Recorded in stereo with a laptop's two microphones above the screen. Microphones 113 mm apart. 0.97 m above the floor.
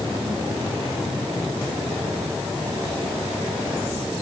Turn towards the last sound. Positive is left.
No sound to turn to.